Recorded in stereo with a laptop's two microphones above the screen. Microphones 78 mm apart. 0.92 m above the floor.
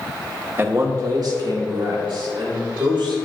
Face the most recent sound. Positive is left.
turn(degrees=-80)